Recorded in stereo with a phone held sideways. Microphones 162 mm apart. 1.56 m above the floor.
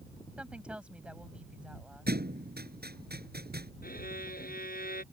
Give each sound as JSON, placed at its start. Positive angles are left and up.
{"t": 0.4, "sound": "a woman speaking", "side_deg": -5}
{"t": 2.1, "sound": "a thud", "side_deg": -80}
{"t": 3.8, "sound": "a violin", "side_deg": 65}